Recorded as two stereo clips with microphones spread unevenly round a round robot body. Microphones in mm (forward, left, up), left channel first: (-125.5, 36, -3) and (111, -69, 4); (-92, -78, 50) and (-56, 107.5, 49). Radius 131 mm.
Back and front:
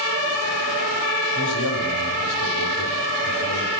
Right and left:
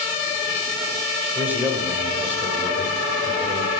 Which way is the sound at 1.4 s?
160° left.